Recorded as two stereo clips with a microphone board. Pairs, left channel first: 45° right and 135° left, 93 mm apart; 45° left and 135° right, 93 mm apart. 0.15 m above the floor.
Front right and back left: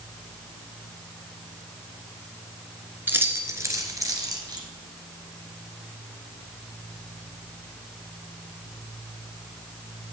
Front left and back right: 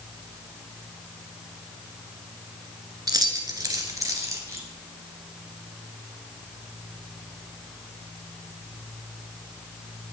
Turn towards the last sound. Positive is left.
turn(degrees=170)